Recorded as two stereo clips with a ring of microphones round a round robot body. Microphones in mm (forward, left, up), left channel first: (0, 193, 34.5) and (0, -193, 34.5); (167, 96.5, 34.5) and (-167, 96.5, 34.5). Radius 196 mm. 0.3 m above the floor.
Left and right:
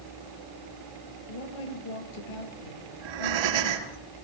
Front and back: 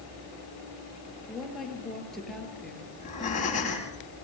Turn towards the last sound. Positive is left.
turn(degrees=-75)